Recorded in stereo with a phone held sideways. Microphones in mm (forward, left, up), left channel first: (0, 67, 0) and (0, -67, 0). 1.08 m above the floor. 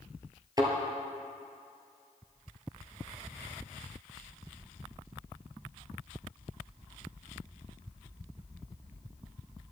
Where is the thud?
25° right (ahead or behind), 1.3 m.